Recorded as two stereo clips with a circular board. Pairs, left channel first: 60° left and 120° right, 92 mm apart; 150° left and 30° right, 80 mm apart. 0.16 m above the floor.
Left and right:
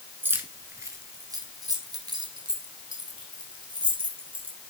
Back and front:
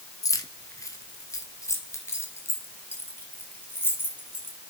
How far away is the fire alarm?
No fire alarm in this recording.